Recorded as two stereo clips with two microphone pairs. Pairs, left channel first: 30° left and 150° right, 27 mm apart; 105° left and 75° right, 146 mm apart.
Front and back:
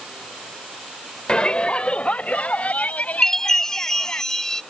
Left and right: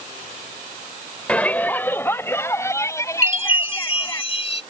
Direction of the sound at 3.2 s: 95° left.